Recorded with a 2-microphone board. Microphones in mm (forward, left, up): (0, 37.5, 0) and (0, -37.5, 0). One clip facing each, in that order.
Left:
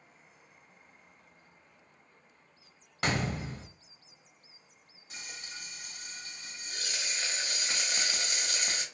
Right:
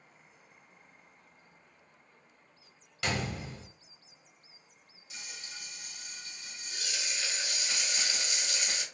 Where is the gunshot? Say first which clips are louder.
Left 3 dB; 40° left (ahead or behind), 0.6 m.